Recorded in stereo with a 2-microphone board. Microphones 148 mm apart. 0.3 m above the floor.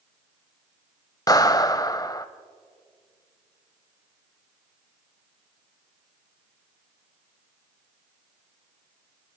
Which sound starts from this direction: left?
A clap, at 1.3 s.